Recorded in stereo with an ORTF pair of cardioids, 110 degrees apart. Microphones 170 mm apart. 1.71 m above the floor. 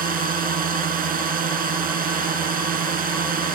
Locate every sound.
0.0 s a drone: 55° right